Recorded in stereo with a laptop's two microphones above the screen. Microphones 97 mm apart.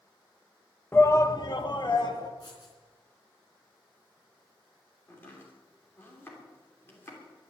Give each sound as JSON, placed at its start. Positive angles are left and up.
{"t": 0.9, "sound": "a shout", "side_deg": 25, "distance_m": 0.9}
{"t": 2.4, "sound": "writing", "side_deg": 55, "distance_m": 3.5}
{"t": 5.1, "sound": "chopping", "side_deg": 25, "distance_m": 3.0}